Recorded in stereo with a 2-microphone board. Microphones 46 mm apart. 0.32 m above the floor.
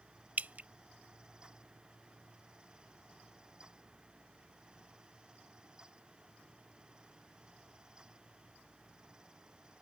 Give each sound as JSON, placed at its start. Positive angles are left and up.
{"t": 0.4, "sound": "dripping", "side_deg": -40}